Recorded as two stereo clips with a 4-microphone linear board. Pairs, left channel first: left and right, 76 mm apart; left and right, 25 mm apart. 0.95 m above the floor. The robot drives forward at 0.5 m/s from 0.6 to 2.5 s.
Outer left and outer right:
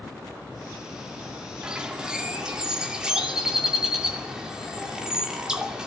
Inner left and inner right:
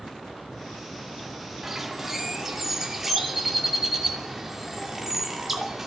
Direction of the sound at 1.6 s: 10° right (ahead or behind).